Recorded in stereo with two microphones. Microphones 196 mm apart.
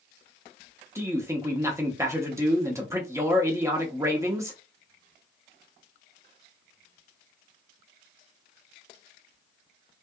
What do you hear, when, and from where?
0.9 s a man speaking: 15° right (ahead or behind), 0.7 m